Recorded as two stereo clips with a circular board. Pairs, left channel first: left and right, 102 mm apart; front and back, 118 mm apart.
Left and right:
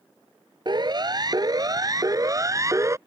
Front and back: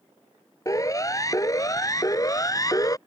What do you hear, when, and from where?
0.7 s a siren: 55° right; by 3.0 s 45° right